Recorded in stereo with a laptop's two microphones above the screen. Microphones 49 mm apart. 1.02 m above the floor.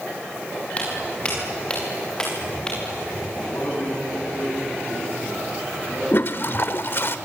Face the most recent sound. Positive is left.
turn(degrees=50)  # may be behind; listen again after turning